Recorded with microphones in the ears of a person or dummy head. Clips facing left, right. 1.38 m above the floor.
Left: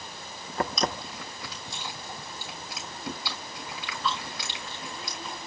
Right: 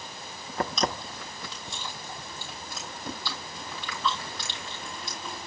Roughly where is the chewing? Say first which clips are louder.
Right 1 dB; centre.